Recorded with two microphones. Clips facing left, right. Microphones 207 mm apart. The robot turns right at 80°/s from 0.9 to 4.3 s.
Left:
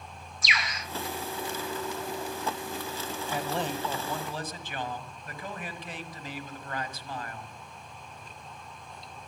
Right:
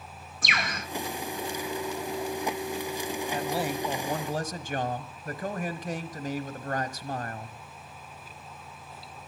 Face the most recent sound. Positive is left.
turn(degrees=-115)